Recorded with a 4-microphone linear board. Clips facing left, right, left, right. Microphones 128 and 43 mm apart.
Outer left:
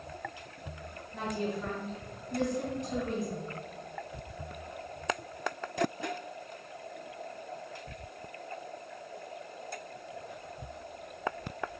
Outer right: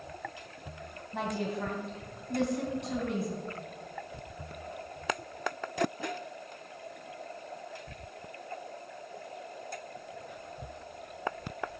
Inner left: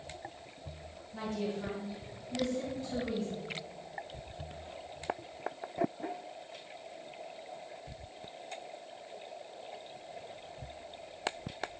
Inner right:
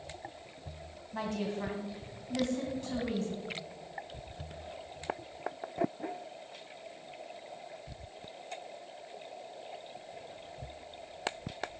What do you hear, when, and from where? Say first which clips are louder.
1.1 s a woman speaking: outer right 1 dB, inner right 1 dB; 70° right (ahead or behind), 2.5 m